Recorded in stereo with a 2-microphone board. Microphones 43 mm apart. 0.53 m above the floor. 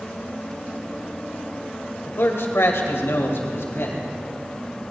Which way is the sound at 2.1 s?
60° left (ahead or behind).